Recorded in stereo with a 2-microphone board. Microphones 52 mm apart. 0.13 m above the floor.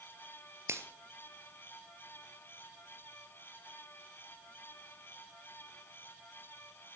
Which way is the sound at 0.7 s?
55° right (ahead or behind).